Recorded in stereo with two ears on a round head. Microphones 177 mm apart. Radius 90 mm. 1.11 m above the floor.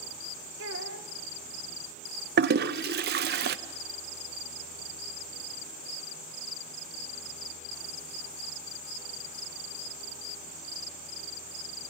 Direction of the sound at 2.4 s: 55° right (ahead or behind).